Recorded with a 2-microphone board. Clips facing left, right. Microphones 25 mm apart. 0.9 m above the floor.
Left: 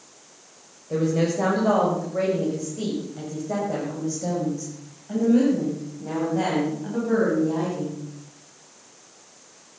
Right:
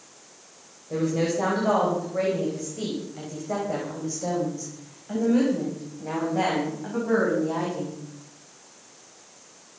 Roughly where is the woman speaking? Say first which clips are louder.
Left 2 dB; centre.